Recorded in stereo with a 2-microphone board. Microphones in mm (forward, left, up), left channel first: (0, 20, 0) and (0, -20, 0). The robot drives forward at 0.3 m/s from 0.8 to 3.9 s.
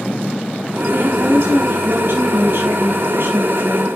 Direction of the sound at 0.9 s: 60° right (ahead or behind).